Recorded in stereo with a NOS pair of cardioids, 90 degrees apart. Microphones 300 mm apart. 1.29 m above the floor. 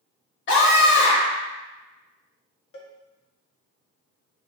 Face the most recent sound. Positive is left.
turn(degrees=45)